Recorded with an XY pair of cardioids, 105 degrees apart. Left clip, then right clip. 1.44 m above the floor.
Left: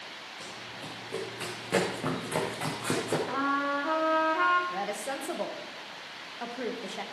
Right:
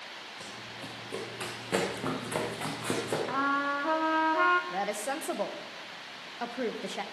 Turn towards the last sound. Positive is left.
turn(degrees=-25)